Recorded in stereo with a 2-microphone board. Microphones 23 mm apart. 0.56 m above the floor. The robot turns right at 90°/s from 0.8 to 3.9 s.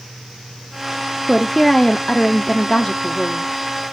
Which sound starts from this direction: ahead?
A woman speaking, at 1.3 s.